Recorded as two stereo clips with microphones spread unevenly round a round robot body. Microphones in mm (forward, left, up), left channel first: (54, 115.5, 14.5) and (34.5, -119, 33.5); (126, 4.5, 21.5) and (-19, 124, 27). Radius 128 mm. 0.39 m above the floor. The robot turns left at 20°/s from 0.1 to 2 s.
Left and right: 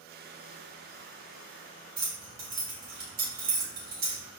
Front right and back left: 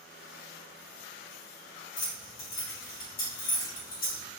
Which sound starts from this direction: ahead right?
Keys jangling, at 2.0 s.